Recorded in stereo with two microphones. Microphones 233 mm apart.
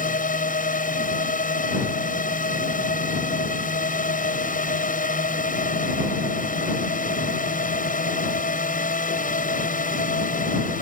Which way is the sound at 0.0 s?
35° left (ahead or behind).